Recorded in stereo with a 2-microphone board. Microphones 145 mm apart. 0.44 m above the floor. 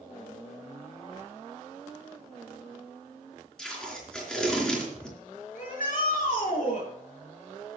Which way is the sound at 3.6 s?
5° left (ahead or behind).